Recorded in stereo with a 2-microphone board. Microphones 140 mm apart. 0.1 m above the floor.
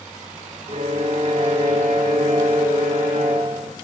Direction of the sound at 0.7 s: 50° right (ahead or behind).